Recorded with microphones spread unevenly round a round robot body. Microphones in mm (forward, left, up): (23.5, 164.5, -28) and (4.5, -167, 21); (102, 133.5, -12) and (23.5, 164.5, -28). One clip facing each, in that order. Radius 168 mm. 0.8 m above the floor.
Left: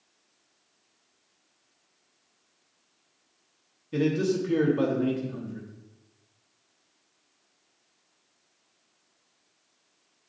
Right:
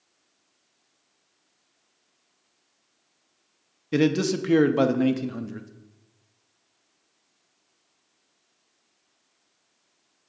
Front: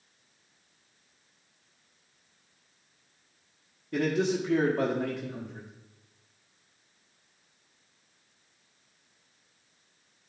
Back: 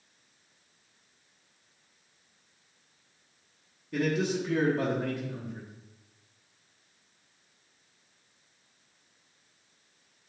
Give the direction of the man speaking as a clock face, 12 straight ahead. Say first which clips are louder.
Right 3 dB, front 2 dB; 3 o'clock.